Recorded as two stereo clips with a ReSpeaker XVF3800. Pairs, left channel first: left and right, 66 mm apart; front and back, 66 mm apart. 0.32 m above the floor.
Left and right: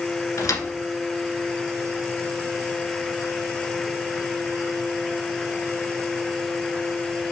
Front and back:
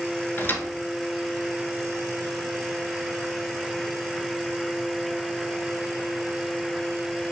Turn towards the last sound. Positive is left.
turn(degrees=55)